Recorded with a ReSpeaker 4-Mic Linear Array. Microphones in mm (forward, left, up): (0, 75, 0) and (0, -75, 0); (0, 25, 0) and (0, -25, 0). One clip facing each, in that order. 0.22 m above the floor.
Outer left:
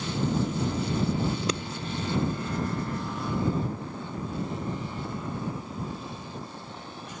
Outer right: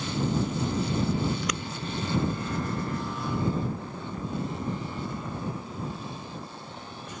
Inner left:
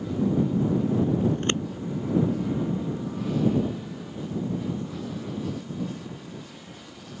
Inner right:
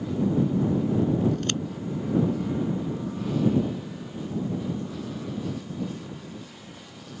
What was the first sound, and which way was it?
Scissors, 30° left (ahead or behind).